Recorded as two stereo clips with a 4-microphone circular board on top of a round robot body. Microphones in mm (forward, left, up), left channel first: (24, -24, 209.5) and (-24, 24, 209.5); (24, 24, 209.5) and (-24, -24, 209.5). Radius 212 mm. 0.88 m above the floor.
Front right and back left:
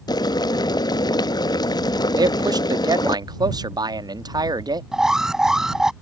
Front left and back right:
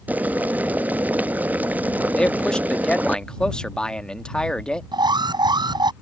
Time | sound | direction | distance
0.1 | boiling | 65° right | ?
2.2 | a man speaking | 125° left | ?
4.9 | an alarm | 145° right | ?